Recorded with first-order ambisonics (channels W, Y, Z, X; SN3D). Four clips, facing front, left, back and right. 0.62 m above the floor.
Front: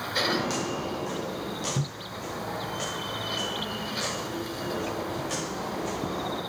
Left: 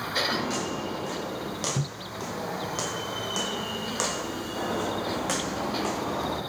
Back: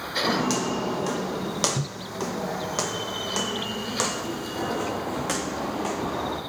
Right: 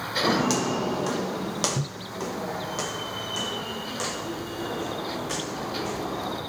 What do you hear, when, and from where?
0.2 s footsteps: 115° right, 1.8 m; by 6.4 s 135° left, 3.5 m